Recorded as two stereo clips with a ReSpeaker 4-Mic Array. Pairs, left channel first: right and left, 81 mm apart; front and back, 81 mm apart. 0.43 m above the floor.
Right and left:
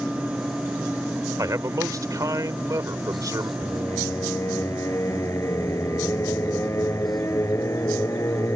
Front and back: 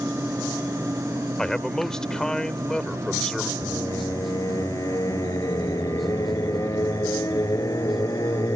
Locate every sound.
1.4 s a man speaking: 80° left
3.6 s singing: 40° right